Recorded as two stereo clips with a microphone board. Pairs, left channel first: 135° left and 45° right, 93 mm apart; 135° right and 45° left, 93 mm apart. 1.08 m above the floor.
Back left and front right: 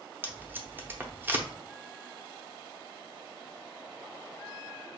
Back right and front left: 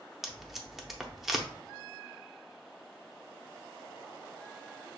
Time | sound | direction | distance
0.2 | tape being pulled | 40° right | 0.6 m